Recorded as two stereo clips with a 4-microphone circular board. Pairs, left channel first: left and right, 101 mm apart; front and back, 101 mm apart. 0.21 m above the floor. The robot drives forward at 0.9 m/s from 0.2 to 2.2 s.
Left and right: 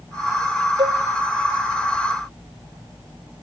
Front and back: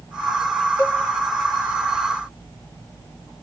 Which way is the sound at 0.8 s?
60° right.